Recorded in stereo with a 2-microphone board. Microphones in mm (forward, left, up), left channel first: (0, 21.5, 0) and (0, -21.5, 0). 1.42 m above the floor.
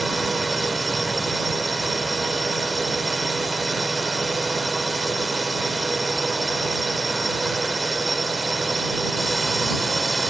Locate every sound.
0.0 s a drone: centre (ahead or behind)